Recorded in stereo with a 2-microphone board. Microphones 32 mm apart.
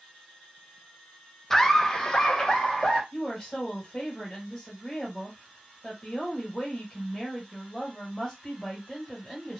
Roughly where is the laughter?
Centre.